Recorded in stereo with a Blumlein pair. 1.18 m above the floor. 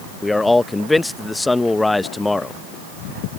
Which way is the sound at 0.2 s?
5° left.